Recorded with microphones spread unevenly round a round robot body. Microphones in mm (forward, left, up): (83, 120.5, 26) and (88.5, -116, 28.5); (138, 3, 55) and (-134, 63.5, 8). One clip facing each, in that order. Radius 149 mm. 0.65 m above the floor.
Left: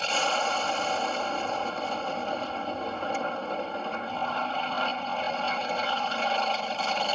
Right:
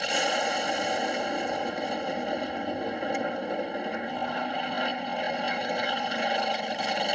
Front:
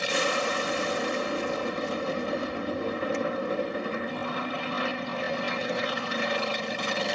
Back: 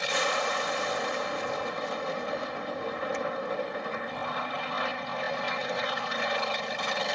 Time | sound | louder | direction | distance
0.0 | an aircraft | right 1 dB, front 3 dB | 35° right | ?